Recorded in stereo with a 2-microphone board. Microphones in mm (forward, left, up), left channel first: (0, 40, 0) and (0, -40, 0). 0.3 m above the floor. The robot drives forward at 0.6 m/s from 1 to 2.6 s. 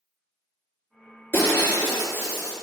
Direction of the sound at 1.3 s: 25° left (ahead or behind).